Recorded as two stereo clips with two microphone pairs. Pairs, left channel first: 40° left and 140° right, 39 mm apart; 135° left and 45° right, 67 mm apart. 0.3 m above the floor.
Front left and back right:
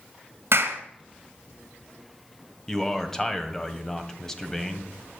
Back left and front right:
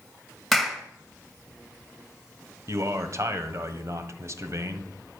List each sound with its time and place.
0.5 s a clap: 135° right, 2 m
2.7 s a man speaking: 35° right, 1.4 m